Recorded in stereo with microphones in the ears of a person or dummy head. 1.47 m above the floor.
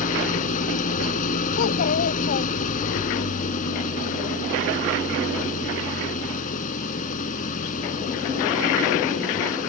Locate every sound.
0.0 s an engine running: 45° left (ahead or behind)
1.6 s a child speaking: 45° left (ahead or behind)